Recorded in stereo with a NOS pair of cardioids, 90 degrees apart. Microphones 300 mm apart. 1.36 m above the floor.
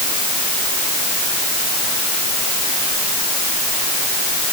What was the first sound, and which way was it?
Only background noise.